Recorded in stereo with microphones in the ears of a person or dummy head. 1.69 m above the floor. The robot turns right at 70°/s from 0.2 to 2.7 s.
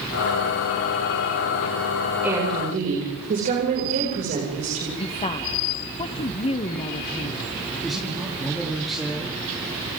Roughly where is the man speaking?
Centre.